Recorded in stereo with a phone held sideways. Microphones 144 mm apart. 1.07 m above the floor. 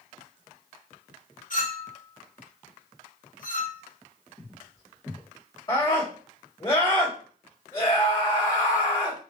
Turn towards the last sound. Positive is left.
turn(degrees=30)  # may be behind; listen again after turning